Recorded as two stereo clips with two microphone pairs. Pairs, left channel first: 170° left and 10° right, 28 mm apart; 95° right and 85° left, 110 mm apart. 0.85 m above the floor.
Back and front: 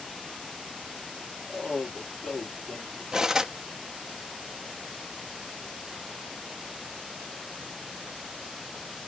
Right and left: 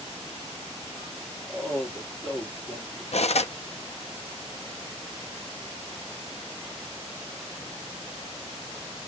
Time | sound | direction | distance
1.5 | a man speaking | 165° right | 2.5 m
3.1 | cutlery clinking | 80° right | 0.5 m